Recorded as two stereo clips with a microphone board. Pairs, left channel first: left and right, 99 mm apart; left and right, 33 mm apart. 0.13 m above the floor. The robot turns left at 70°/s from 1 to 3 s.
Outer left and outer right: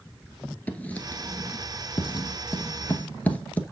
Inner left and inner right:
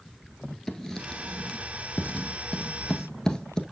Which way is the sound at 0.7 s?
15° left (ahead or behind).